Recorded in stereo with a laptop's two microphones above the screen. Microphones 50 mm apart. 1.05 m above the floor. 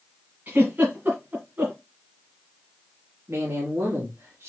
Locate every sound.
0.5 s a giggle: 40° right (ahead or behind), 2 m
3.3 s a man speaking: 65° right (ahead or behind), 1.8 m